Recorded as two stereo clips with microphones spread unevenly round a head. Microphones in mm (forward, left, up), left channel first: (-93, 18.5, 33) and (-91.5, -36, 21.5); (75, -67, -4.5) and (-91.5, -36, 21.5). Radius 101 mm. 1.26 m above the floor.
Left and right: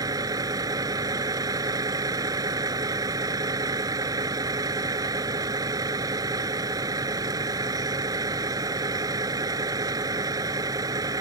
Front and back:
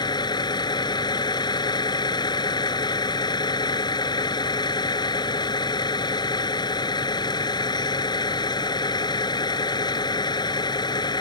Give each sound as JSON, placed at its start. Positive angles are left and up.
{"t": 0.0, "sound": "a vehicle", "azimuth_deg": -75}